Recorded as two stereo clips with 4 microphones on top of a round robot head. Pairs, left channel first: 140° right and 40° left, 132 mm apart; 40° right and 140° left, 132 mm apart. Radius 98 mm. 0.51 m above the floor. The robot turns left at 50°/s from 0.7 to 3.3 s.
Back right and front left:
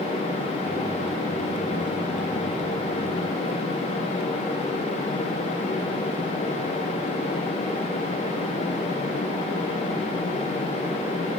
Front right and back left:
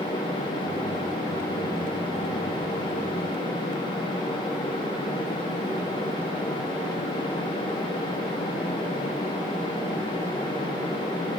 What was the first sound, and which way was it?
Only background noise.